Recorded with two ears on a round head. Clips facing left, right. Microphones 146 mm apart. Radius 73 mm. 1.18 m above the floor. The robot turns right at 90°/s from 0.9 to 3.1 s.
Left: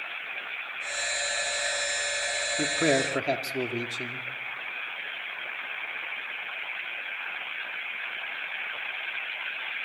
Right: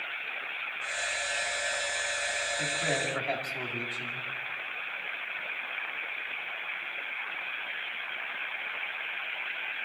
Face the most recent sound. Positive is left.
turn(degrees=130)